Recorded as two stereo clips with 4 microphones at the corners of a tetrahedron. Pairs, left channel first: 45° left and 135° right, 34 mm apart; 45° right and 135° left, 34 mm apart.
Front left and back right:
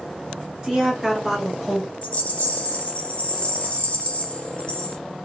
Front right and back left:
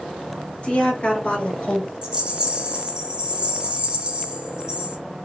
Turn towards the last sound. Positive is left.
turn(degrees=85)